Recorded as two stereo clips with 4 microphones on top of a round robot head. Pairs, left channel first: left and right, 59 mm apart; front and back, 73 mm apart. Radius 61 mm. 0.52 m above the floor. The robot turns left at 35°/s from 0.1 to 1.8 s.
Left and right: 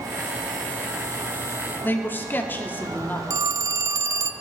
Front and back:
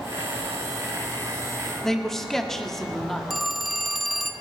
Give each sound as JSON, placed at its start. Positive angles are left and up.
{"t": 1.8, "sound": "a man speaking", "azimuth_deg": 85, "distance_m": 1.3}
{"t": 3.3, "sound": "a phone ringing", "azimuth_deg": -90, "distance_m": 0.6}